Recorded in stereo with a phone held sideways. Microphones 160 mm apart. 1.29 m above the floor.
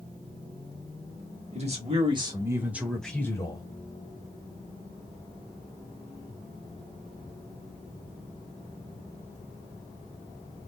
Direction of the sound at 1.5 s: 45° right (ahead or behind).